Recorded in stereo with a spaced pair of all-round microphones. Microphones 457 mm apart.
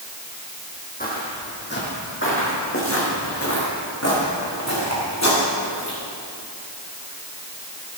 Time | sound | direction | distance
1.0 | footsteps | 20° left (ahead or behind) | 3 m